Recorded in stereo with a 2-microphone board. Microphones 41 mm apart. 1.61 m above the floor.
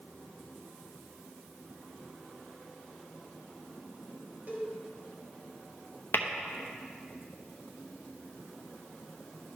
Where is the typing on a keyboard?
No typing on a keyboard in this recording.